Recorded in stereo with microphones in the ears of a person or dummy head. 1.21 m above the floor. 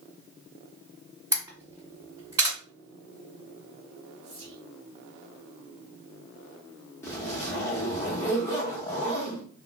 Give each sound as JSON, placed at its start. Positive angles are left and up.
{"t": 1.3, "sound": "a camera shutter", "side_deg": -20, "distance_m": 1.6}
{"t": 4.2, "sound": "whispering", "side_deg": -45, "distance_m": 1.3}
{"t": 7.0, "sound": "a zipper", "side_deg": 10, "distance_m": 0.8}